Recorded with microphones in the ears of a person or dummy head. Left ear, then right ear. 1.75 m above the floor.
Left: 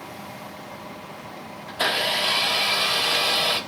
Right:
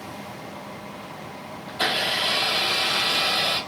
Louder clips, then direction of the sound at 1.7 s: Left 1 dB; 5° right (ahead or behind).